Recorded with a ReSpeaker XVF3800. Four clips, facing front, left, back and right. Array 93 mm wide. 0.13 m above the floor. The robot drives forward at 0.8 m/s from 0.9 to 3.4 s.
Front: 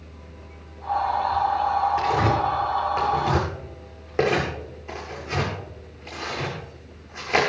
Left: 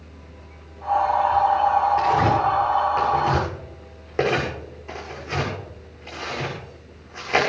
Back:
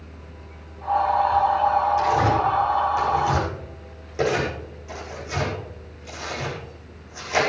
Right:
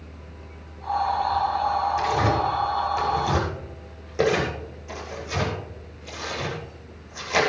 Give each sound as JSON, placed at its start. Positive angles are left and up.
{"t": 2.0, "sound": "tearing paper", "azimuth_deg": 40, "distance_m": 9.0}